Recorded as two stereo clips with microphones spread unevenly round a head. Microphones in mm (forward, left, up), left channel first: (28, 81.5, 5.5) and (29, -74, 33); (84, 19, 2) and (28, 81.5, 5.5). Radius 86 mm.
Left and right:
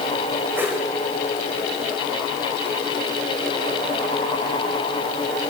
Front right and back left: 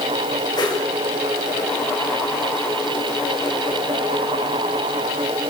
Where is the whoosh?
15° right, 9.5 m.